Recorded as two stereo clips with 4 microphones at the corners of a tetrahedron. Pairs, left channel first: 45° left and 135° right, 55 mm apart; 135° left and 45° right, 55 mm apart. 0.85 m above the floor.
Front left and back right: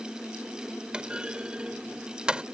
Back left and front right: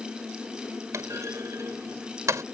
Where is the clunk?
65° right.